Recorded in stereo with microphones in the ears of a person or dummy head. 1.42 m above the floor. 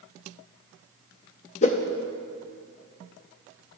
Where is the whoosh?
40° left (ahead or behind), 0.6 m.